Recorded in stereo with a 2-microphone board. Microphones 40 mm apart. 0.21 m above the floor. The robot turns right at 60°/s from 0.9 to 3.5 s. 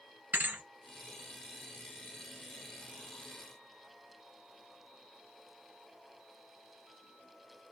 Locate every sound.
0.3 s a thud: 50° right (ahead or behind), 1.3 m